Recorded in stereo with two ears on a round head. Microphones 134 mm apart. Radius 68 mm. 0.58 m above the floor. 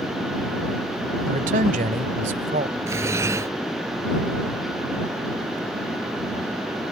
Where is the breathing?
20° right (ahead or behind).